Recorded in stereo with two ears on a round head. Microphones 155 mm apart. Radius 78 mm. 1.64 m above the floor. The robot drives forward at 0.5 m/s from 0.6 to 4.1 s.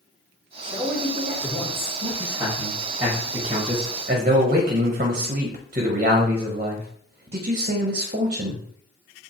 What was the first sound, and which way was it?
A man speaking, centre (ahead or behind).